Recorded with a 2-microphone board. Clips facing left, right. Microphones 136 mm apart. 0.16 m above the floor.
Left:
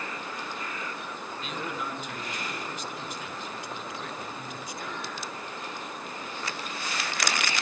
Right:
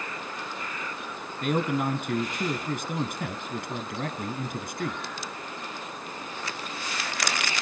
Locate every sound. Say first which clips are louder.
1.4 s a man speaking: right 11 dB; 55° right (ahead or behind), 1.8 m